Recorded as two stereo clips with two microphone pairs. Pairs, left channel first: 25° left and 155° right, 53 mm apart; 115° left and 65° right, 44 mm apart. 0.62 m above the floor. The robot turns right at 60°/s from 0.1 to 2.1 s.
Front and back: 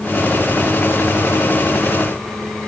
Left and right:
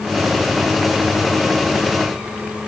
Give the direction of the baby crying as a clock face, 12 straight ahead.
I don't hear a baby crying.